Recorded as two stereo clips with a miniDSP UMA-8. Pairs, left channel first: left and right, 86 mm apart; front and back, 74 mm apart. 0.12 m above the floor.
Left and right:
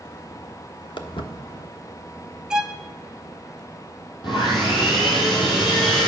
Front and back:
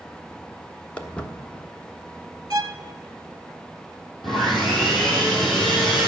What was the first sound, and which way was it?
Footsteps, 75° left.